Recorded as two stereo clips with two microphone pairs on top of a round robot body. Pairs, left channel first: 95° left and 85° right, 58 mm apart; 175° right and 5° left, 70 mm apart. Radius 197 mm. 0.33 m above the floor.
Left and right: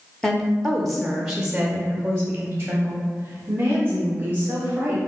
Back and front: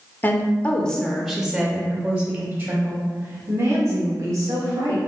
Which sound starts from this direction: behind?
A woman speaking, at 0.2 s.